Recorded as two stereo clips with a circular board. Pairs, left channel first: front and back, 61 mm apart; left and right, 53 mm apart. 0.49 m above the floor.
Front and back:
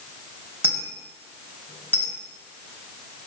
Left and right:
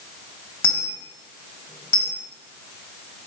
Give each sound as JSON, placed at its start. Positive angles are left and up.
{"t": 0.6, "sound": "a dropped coin", "azimuth_deg": 125, "distance_m": 0.8}